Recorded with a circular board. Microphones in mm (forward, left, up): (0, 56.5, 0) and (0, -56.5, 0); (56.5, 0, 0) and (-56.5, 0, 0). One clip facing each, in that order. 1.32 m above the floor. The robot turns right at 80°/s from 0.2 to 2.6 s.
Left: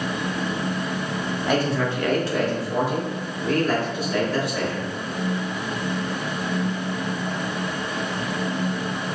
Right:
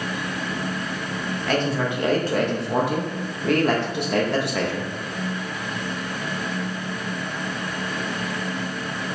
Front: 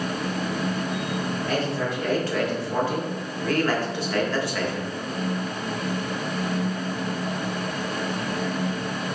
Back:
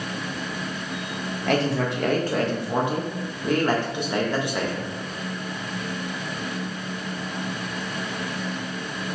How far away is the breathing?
I don't hear breathing.